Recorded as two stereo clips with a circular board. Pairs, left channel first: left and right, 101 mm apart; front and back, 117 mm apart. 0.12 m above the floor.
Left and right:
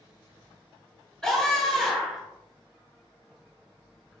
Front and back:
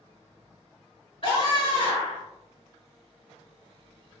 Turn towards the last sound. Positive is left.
turn(degrees=10)